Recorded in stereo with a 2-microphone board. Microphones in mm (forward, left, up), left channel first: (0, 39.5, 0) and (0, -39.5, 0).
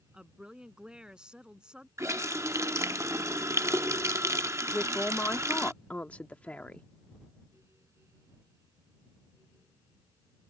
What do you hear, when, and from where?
0.1 s a woman speaking: 10° right (ahead or behind)
2.0 s a running tap: 35° right (ahead or behind)
4.7 s a man speaking: 20° left (ahead or behind)